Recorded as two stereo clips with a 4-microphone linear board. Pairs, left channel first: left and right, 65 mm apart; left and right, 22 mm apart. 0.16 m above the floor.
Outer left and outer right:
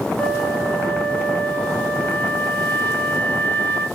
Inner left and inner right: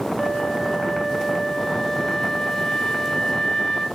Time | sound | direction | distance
0.2 | a flute | 30° left (ahead or behind) | 3 m